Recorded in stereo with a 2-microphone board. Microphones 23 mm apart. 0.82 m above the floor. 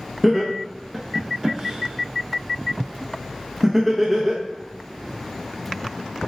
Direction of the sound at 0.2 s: 10° right (ahead or behind).